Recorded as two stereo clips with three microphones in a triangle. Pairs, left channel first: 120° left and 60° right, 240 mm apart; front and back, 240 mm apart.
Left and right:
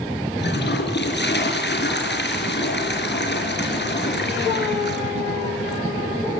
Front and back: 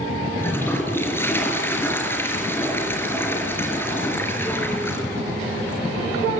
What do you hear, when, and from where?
0.4 s a toilet flushing: 80° left, 4.5 m